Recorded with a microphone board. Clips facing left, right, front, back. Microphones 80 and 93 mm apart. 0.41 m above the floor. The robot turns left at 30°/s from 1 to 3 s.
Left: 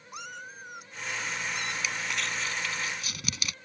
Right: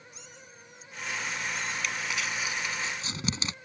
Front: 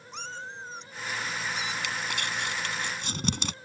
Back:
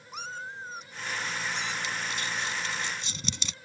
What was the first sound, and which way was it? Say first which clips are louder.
A cat meowing: left 10 dB, back 1 dB; 100° left.